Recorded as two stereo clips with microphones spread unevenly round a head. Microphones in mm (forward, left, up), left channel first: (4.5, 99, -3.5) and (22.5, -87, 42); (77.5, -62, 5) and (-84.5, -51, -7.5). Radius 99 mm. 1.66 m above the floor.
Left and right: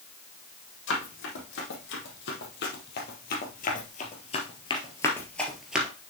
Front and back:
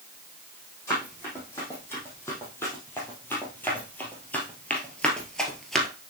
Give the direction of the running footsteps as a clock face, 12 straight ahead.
10 o'clock.